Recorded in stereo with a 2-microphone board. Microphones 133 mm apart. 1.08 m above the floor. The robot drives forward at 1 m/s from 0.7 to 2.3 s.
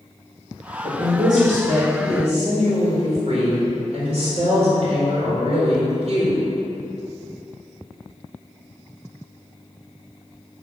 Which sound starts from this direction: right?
A woman speaking, at 0.8 s.